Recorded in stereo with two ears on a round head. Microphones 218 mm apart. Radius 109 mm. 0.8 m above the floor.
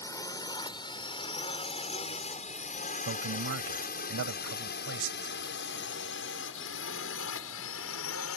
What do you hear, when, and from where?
0.0 s a drone: 15° left (ahead or behind); by 8.4 s 65° left (ahead or behind)
3.0 s a man speaking: 60° right (ahead or behind)